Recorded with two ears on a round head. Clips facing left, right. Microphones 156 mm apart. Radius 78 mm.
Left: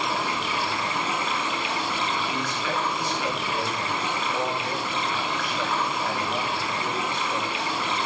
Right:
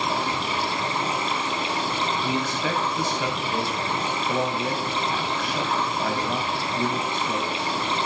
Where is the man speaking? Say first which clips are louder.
Right 3 dB; 75° right (ahead or behind), 5 m.